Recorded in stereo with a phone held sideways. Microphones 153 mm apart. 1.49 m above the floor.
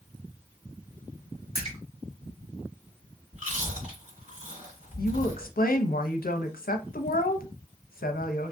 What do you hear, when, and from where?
1.6 s a splash: 40° right (ahead or behind), 1.8 m
3.3 s chewing: 50° right (ahead or behind), 2 m
5.0 s a woman speaking: 75° left (ahead or behind), 0.6 m